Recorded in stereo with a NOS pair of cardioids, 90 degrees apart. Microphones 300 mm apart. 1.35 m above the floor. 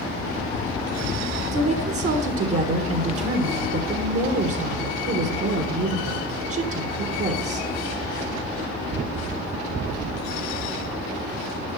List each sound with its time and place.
1.5 s a woman speaking: 50° right, 1.9 m